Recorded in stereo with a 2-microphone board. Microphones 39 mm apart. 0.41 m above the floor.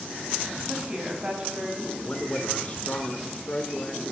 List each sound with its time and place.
0.7 s a woman speaking: 25° right (ahead or behind), 3 m
2.0 s a man speaking: 30° left (ahead or behind), 1.3 m